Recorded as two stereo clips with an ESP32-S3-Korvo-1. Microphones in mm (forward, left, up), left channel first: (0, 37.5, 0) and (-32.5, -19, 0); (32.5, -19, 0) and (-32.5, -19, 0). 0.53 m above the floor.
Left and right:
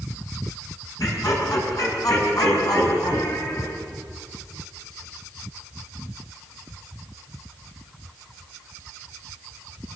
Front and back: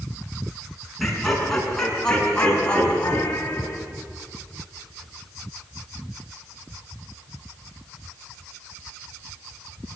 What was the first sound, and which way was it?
Laughter, 90° left.